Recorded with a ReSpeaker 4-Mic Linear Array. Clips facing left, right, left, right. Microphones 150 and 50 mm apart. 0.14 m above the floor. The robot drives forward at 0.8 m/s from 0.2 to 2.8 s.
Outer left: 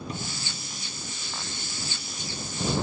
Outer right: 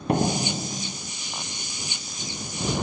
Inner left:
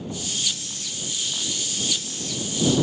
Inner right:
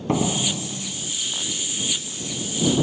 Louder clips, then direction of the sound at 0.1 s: Outer right 14 dB, inner right 11 dB; 70° right (ahead or behind).